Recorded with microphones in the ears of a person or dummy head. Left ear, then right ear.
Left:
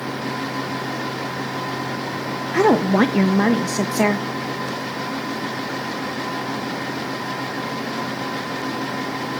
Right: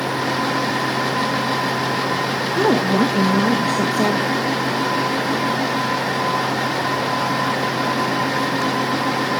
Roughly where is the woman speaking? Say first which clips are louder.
Left 2 dB; left.